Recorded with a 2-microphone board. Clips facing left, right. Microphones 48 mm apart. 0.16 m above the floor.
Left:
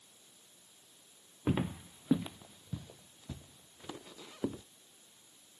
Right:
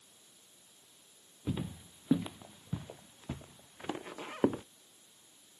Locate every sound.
1.5 s footsteps: 50° left (ahead or behind); by 4.6 s 50° right (ahead or behind)